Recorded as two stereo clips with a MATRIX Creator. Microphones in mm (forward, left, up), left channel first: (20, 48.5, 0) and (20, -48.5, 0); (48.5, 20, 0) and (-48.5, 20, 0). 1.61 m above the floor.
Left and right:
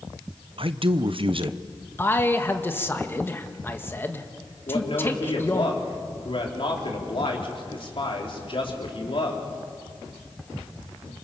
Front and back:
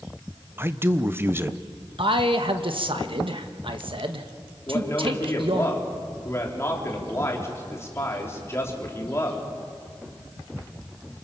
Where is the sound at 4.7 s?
65° left, 4 m.